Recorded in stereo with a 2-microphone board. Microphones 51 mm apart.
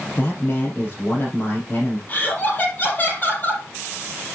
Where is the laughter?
35° left (ahead or behind), 5.5 m.